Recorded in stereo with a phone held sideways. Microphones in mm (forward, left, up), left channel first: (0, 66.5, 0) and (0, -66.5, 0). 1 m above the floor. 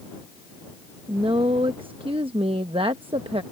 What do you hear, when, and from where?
1.1 s a woman speaking: 40° right (ahead or behind)